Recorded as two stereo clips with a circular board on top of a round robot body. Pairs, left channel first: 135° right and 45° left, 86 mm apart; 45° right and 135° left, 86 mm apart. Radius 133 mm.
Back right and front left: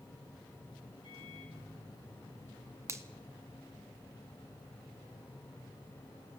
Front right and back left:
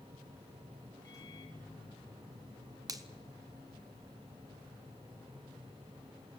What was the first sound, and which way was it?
A microwave, 95° right.